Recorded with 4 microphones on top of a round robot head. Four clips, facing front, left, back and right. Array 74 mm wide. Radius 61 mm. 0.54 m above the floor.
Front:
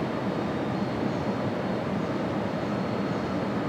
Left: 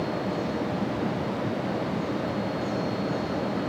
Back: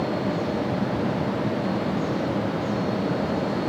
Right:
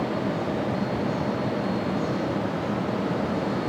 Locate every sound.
Only background noise.